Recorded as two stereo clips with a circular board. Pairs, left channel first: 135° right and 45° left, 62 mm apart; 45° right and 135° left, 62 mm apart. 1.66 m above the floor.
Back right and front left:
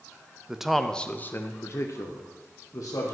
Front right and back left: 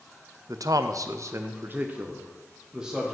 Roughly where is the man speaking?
Behind left.